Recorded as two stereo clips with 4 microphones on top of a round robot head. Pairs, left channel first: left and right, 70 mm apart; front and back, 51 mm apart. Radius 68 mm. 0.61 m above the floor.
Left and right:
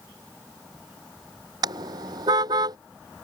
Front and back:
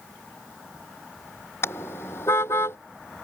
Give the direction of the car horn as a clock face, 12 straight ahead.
2 o'clock.